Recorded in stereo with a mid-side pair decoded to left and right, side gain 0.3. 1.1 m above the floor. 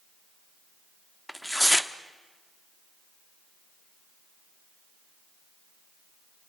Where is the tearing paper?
5° left, 1.2 m.